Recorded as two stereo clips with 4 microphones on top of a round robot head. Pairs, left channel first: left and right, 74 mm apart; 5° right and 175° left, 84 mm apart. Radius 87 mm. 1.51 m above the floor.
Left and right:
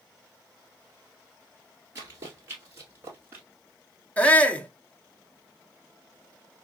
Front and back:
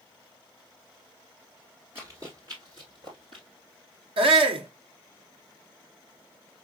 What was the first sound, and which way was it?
Running footsteps, 120° right.